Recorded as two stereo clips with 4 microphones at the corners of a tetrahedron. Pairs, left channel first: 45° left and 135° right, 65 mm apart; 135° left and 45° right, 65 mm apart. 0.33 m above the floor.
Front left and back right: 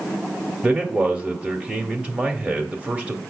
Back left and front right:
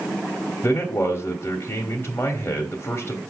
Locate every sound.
0.6 s a man speaking: 165° left, 1.3 m